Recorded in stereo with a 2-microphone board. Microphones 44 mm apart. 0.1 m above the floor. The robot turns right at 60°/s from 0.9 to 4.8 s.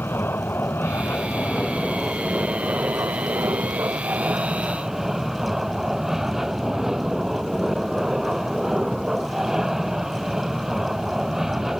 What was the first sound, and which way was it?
An aircraft, 115° left.